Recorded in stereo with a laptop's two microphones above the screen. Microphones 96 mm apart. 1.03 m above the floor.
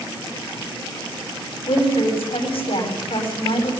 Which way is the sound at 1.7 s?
70° left (ahead or behind).